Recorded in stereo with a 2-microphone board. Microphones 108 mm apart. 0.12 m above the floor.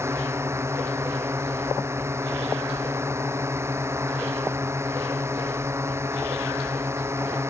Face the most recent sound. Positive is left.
turn(degrees=-25)  # may be behind; listen again after turning